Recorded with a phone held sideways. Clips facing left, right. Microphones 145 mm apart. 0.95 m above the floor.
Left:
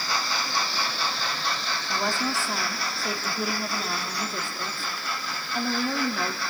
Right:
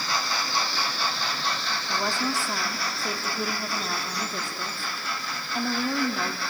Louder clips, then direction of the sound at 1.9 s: Even; centre (ahead or behind).